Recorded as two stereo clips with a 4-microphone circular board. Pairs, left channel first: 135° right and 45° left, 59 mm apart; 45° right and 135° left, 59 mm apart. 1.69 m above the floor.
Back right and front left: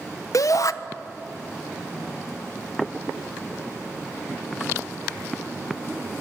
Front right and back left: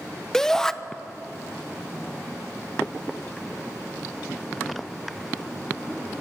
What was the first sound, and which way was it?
A shout, 130° right.